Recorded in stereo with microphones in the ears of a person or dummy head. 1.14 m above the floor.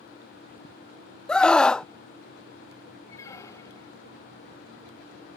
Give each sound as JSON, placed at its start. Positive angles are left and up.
{"t": 1.3, "sound": "a scream", "side_deg": 5}
{"t": 3.1, "sound": "a squeak", "side_deg": 25}